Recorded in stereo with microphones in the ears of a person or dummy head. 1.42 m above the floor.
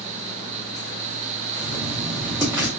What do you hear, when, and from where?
1.6 s writing: 15° right (ahead or behind), 1.0 m